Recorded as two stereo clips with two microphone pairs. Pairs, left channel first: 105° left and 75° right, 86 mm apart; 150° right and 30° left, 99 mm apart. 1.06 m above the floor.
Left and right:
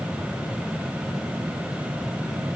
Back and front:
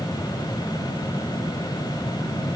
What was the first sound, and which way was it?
Only background noise.